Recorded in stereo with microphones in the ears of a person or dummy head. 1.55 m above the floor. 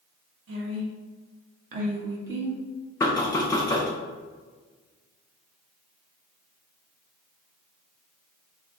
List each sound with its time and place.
0.5 s a woman speaking: 75° right (ahead or behind), 0.9 m; by 2.6 s 5° right (ahead or behind), 0.7 m
3.0 s knocking: 15° left (ahead or behind), 0.6 m